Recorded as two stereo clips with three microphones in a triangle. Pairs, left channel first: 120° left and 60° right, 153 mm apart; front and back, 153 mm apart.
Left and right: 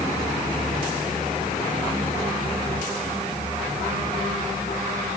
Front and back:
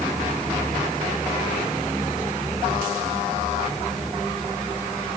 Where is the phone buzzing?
No phone buzzing in this recording.